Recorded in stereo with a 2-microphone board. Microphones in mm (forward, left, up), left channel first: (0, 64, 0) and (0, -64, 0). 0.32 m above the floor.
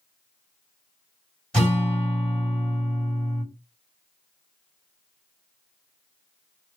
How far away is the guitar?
About 2.5 m.